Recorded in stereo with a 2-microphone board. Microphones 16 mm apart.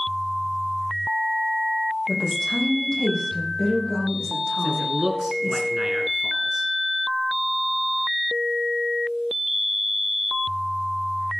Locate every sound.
2.1 s a woman speaking: 40° left (ahead or behind), 5.5 m; by 5.6 s 30° left (ahead or behind), 8.5 m
4.6 s a man speaking: 30° right (ahead or behind), 1.5 m